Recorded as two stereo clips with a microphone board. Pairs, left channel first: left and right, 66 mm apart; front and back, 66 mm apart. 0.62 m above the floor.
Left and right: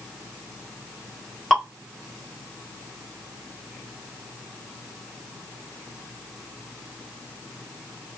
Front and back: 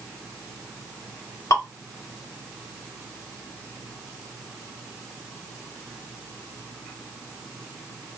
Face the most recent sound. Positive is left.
turn(degrees=0)